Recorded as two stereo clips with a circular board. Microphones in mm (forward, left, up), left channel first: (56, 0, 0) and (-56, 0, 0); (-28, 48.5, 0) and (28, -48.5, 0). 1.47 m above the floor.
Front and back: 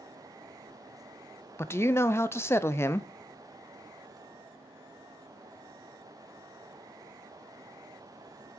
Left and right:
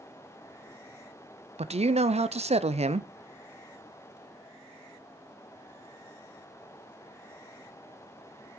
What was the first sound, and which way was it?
A man speaking, 65° right.